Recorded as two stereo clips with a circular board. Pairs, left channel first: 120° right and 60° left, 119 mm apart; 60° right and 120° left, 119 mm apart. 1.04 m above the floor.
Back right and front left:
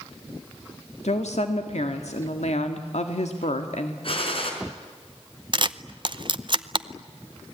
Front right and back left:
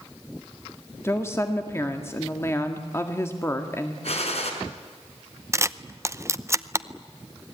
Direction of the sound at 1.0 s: 125° right.